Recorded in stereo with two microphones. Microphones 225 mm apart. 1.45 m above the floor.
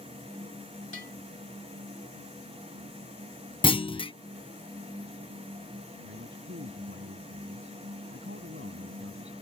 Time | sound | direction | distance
0.9 | a bell | 60° right (ahead or behind) | ?
3.6 | a clunk | 25° left (ahead or behind) | ?
6.0 | a man speaking | 60° right (ahead or behind) | ?